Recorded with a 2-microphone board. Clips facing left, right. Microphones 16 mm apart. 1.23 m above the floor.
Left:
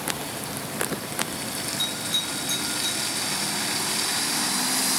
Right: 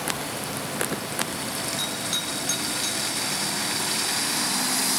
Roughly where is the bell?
Right.